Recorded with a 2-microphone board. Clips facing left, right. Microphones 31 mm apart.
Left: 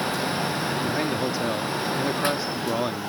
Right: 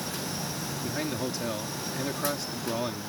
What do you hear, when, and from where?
0.8 s a man speaking: 20° left (ahead or behind)